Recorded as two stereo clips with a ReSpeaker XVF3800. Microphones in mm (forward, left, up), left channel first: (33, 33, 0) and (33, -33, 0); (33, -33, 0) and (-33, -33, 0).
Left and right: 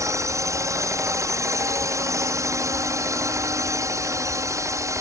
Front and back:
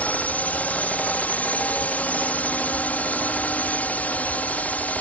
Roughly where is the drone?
Ahead right.